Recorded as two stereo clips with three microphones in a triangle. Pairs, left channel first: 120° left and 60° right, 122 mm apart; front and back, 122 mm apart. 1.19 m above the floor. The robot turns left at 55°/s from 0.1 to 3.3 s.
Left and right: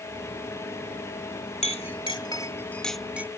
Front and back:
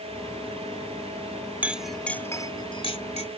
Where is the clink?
105° left; by 3.3 s 10° left.